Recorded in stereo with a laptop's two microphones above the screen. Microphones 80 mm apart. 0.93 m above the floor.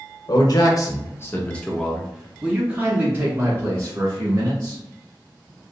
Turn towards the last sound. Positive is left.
turn(degrees=-40)  # may be behind; listen again after turning